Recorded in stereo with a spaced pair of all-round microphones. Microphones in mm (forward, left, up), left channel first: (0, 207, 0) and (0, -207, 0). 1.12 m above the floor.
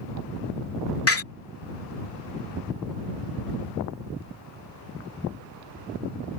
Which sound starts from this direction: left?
A door slam, at 1.1 s.